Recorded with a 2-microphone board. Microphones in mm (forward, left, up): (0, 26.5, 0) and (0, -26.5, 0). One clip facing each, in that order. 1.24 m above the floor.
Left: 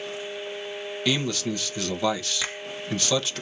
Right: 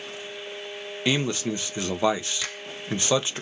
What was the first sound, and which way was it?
A man speaking, 25° right (ahead or behind).